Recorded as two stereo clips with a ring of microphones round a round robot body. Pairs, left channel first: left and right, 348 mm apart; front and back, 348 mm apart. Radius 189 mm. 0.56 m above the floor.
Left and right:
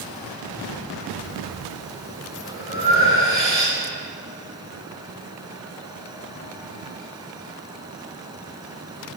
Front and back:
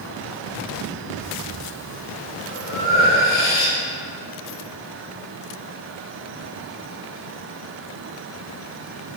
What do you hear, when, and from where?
1.2 s breathing: 35° right, 3.5 m